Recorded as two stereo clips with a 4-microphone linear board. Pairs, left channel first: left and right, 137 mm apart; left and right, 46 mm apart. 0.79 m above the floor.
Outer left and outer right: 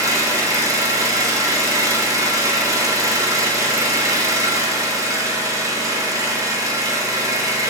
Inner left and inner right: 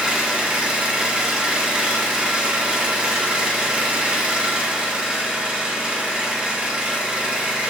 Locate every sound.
0.0 s an engine running: 25° right (ahead or behind), 1.0 m